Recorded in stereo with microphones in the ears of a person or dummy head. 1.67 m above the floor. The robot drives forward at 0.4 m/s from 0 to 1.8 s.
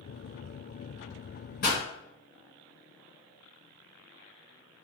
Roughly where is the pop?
Left.